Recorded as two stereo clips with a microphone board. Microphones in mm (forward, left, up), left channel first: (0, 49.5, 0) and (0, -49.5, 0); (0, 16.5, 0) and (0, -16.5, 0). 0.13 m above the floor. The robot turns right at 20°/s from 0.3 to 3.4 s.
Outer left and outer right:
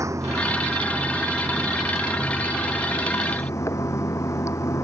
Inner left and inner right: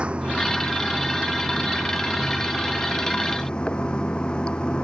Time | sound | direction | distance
0.0 | running water | 30° right | ?